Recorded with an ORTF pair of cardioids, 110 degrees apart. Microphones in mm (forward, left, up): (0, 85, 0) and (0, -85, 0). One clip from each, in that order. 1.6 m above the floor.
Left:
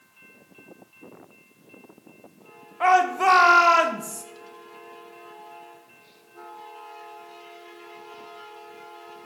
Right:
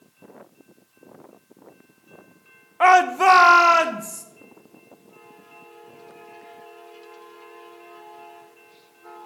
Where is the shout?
35° right, 0.9 m; by 4.2 s 5° right, 1.4 m.